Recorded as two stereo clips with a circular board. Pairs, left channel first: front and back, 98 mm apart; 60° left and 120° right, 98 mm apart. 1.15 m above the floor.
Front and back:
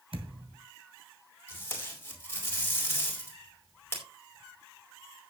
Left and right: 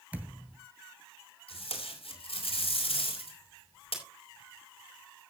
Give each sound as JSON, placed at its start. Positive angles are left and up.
{"t": 0.1, "sound": "a thud", "azimuth_deg": 165, "distance_m": 2.5}
{"t": 1.5, "sound": "tape being pulled", "azimuth_deg": 70, "distance_m": 4.0}